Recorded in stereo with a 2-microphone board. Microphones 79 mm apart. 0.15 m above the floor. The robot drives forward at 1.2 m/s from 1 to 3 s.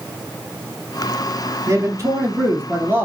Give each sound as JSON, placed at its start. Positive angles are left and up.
{"t": 1.7, "sound": "a man speaking", "side_deg": -40, "distance_m": 1.7}